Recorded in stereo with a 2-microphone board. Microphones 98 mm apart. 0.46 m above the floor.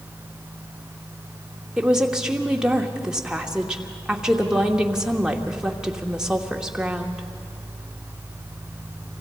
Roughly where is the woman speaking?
Centre.